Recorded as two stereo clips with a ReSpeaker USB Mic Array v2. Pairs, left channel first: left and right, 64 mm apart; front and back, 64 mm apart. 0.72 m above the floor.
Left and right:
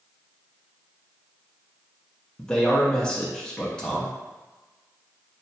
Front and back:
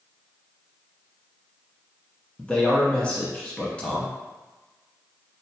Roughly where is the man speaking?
Ahead left.